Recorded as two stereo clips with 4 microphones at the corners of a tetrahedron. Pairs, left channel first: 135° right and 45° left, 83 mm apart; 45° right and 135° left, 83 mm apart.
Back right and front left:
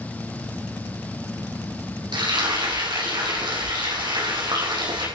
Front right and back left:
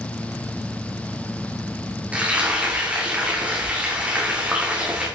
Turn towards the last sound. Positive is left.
turn(degrees=65)